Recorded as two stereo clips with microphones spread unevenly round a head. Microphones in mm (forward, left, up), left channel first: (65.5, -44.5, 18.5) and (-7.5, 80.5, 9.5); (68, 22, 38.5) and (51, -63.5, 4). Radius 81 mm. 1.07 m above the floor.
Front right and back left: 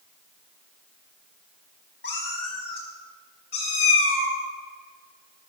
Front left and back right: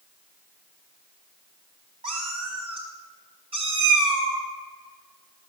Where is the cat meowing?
90° right, 4 m.